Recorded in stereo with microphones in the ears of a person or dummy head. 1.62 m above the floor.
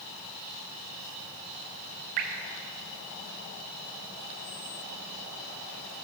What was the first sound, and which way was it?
Dripping, 40° right (ahead or behind).